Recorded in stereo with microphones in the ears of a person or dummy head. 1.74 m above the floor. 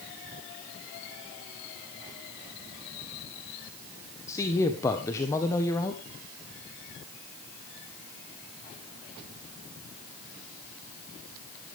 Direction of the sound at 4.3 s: 20° left (ahead or behind).